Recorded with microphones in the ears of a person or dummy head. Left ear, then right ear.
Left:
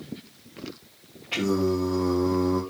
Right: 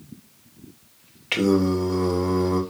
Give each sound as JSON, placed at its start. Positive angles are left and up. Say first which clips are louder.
{"t": 1.3, "sound": "singing", "louder": "right 4 dB", "side_deg": -35, "distance_m": 0.8}